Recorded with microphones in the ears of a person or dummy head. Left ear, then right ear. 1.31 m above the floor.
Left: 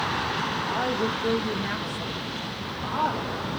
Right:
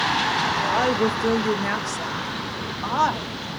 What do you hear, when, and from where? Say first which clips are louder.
0.7 s a woman speaking: right 5 dB; 60° right (ahead or behind), 1.9 m; by 3.4 s 75° right (ahead or behind), 2.5 m